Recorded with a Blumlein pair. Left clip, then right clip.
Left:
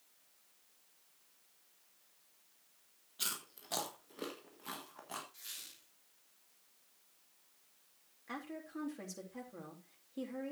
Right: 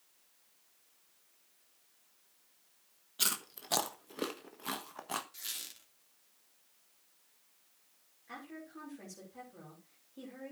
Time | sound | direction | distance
3.2 | chewing | 70° right | 1.4 m
5.3 | a squeak | 25° right | 3 m
8.3 | a woman speaking | 25° left | 3.5 m